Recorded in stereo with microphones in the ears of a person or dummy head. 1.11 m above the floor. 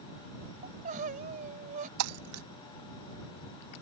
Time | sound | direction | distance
0.6 | crying | 45° right (ahead or behind) | ?
2.0 | breaking glass | 80° right | ?